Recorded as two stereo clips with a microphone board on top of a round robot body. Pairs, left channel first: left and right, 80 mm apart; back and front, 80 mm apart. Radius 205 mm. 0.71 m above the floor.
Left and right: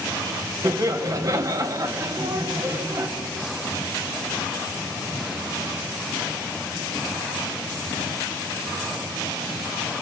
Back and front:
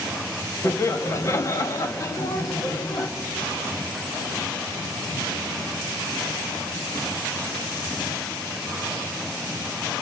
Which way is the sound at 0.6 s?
130° right.